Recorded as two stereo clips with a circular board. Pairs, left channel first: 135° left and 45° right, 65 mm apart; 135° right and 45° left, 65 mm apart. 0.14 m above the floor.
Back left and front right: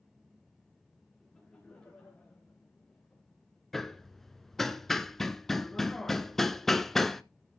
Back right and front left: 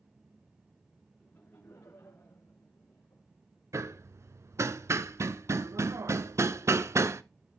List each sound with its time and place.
1.2 s laughter: 155° right, 1.6 m
3.7 s hammering: 50° left, 0.5 m